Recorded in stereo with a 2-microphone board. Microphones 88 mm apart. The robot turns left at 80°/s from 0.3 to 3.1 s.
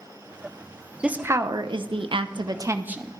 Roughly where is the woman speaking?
Ahead.